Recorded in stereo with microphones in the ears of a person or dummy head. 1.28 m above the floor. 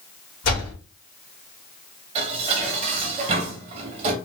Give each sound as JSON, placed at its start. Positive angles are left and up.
{"t": 0.4, "sound": "a door slam", "side_deg": 75, "distance_m": 1.5}
{"t": 2.1, "sound": "dishes clattering", "side_deg": -35, "distance_m": 0.9}